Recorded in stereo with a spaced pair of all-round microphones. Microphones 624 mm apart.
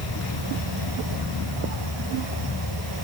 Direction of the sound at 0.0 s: 40° left (ahead or behind).